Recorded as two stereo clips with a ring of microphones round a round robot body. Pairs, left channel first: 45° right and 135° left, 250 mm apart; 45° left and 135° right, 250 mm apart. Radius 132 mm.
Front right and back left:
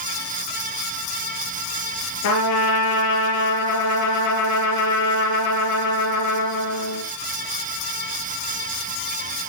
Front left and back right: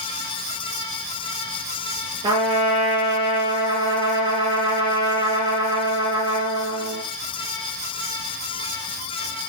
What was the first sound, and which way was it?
A trumpet, 65° right.